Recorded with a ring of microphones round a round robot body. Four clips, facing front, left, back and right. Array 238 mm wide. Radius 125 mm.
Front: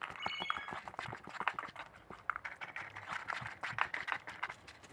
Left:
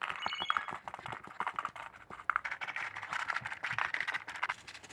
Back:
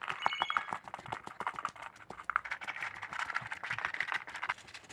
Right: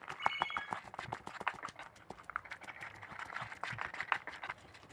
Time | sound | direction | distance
0.2 | a ringtone | 115° left | 6.5 m